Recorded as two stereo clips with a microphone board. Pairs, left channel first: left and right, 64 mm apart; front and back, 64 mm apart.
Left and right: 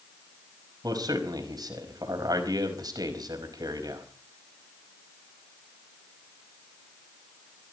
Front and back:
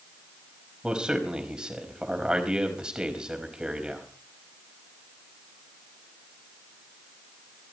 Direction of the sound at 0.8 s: 105° right.